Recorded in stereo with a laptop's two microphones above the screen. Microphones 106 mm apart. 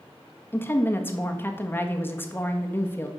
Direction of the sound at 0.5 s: 20° left (ahead or behind).